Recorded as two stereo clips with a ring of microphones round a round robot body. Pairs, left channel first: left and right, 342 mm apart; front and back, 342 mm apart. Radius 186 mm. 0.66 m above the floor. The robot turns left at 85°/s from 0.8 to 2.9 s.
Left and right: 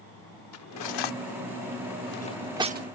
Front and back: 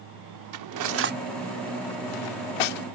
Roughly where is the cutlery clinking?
Behind left.